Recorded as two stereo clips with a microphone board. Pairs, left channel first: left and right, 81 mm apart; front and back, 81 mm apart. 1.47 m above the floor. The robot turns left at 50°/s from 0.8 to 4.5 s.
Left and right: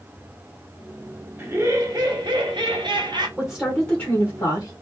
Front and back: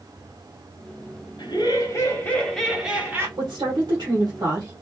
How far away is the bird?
I don't hear a bird.